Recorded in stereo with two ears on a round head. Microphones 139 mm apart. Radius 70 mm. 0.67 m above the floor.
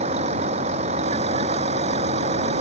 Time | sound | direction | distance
0.0 | a vehicle | 45° right (ahead or behind) | ?